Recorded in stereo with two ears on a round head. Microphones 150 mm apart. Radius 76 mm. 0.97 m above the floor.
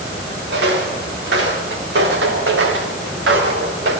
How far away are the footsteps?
About 6 m.